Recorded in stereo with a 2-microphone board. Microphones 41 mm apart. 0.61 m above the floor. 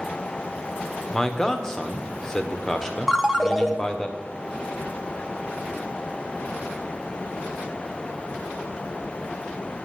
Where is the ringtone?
Centre (ahead or behind), 0.8 m.